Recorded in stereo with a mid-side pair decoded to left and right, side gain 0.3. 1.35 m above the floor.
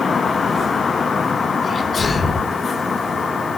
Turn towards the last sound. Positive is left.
turn(degrees=50)